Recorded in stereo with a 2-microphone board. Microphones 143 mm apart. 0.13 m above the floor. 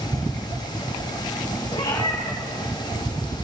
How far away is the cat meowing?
About 4 m.